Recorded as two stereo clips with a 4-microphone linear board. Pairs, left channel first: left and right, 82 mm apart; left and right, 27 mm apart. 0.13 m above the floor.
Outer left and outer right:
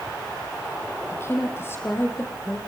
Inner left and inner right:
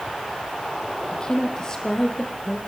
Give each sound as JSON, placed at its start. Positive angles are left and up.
{"t": 1.1, "sound": "a woman speaking", "side_deg": 30, "distance_m": 5.5}